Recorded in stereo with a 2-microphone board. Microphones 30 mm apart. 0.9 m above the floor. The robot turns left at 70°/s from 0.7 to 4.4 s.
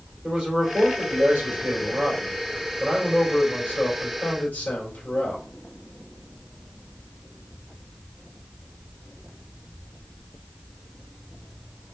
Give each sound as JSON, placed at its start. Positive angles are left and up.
{"t": 0.2, "sound": "a man speaking", "azimuth_deg": -30, "distance_m": 3.0}